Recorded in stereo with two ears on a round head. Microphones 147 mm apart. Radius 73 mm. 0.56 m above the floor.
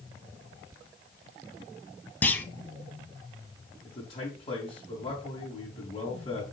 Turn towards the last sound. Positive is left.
turn(degrees=35)  # may be behind; listen again after turning